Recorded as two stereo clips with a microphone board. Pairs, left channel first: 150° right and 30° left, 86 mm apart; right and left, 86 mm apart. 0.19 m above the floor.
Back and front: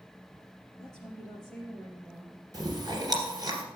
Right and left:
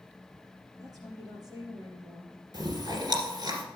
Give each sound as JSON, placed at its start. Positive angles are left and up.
{"t": 0.8, "sound": "a woman speaking", "azimuth_deg": 130, "distance_m": 4.5}
{"t": 2.5, "sound": "chewing", "azimuth_deg": 65, "distance_m": 2.0}